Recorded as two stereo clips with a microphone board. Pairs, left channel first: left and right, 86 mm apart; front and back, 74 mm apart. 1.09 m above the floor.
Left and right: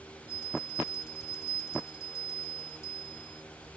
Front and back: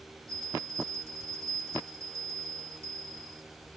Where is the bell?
140° left, 1.7 m.